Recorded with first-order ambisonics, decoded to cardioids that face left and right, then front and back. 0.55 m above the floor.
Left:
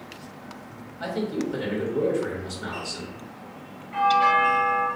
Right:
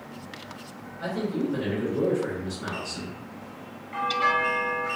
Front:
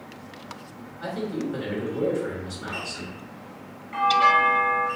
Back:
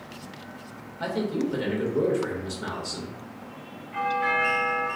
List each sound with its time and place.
1.0 s a man speaking: 155° left, 1.7 m
3.9 s a doorbell: 15° right, 1.1 m